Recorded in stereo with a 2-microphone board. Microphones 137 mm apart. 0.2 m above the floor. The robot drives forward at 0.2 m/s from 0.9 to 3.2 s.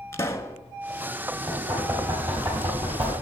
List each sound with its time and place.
0.1 s a pop: 20° left (ahead or behind), 0.6 m
1.5 s knocking: 35° right (ahead or behind), 3.5 m; by 3.1 s 40° right (ahead or behind), 3.5 m